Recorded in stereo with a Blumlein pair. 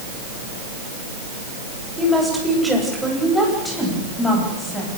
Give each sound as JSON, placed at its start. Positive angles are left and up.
{"t": 2.0, "sound": "a woman speaking", "azimuth_deg": -5, "distance_m": 8.0}